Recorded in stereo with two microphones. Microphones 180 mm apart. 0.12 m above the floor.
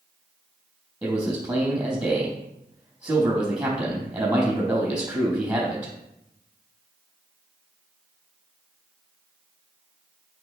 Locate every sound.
1.0 s a man speaking: 10° right (ahead or behind), 3.5 m